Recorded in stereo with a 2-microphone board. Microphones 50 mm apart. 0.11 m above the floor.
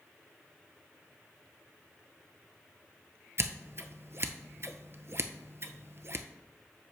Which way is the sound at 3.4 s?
55° right (ahead or behind).